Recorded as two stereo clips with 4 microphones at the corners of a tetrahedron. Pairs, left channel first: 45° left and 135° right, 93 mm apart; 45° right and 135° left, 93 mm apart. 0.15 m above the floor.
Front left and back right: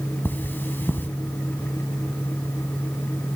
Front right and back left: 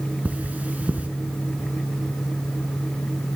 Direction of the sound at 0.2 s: 85° left.